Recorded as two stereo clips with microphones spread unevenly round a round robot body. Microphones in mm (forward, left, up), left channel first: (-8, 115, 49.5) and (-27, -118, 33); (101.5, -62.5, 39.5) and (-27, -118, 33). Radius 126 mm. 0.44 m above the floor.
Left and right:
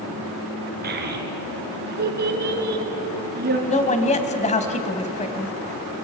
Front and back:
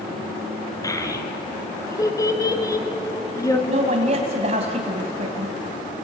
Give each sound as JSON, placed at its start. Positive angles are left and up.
{"t": 0.8, "sound": "a child speaking", "azimuth_deg": -45, "distance_m": 3.5}
{"t": 3.7, "sound": "a woman speaking", "azimuth_deg": 145, "distance_m": 2.5}